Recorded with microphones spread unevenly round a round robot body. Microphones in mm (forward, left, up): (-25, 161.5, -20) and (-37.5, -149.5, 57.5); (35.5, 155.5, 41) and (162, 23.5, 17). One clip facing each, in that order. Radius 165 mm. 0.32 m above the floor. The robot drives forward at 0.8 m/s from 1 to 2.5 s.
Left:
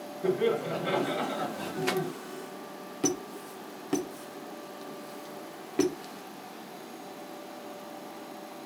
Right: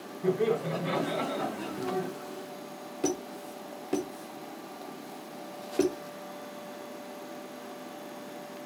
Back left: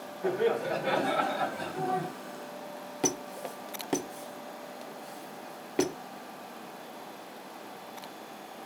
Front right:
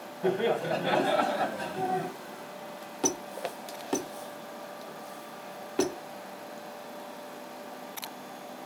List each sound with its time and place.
0.2 s laughter: 5° left, 2.0 m
3.0 s a squeak: 60° left, 0.6 m